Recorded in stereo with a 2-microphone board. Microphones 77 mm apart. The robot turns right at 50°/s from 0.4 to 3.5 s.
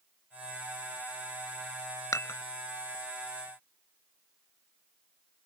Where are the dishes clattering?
45° left (ahead or behind); by 2.4 s 35° left (ahead or behind).